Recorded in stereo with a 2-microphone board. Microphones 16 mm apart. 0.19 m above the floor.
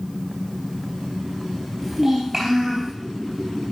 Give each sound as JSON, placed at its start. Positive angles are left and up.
{"t": 1.8, "sound": "a child speaking", "side_deg": -20, "distance_m": 3.0}